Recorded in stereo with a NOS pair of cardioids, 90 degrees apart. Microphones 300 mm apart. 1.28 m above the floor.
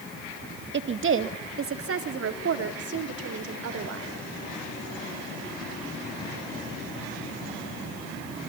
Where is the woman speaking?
40° right, 2 m; by 4.2 s 55° right, 6.5 m.